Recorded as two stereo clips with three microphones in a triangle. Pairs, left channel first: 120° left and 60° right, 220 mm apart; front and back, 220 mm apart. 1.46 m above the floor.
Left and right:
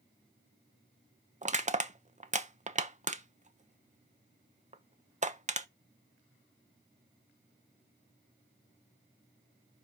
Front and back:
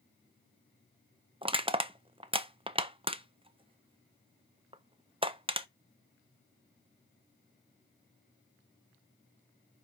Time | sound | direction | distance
1.4 | crushing | 115° right | 0.7 m